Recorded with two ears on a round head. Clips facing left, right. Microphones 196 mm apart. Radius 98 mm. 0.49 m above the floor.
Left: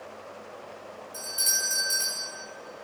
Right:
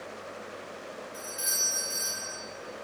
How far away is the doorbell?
About 2.5 m.